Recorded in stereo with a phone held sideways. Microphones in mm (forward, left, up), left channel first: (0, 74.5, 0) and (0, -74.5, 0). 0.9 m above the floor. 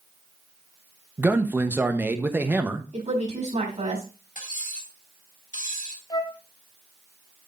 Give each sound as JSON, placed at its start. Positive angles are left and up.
{"t": 1.2, "sound": "a man speaking", "side_deg": -15, "distance_m": 0.9}
{"t": 2.9, "sound": "a woman speaking", "side_deg": -50, "distance_m": 5.5}
{"t": 4.3, "sound": "cutlery clinking", "side_deg": 60, "distance_m": 3.5}
{"t": 6.1, "sound": "a flute", "side_deg": 25, "distance_m": 0.6}